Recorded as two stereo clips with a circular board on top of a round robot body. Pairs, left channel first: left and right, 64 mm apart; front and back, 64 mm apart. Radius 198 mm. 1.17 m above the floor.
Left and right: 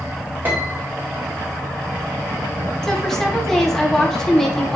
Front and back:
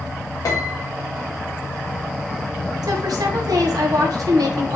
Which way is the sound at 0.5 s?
30° right.